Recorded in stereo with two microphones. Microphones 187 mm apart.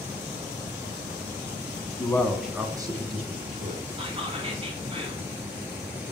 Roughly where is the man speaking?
Centre.